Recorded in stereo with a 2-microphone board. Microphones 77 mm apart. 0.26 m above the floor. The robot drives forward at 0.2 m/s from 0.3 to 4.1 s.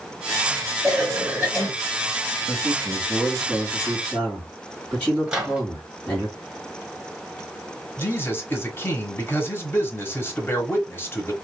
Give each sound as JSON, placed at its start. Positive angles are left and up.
{"t": 0.8, "sound": "a cough", "side_deg": -15, "distance_m": 1.3}
{"t": 2.5, "sound": "a man speaking", "side_deg": 10, "distance_m": 1.8}
{"t": 5.3, "sound": "a microwave", "side_deg": -10, "distance_m": 1.1}
{"t": 8.0, "sound": "a man speaking", "side_deg": 30, "distance_m": 1.0}